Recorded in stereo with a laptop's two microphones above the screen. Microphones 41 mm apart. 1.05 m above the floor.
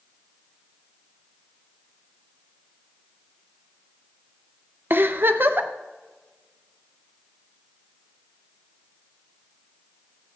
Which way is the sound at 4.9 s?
60° right (ahead or behind).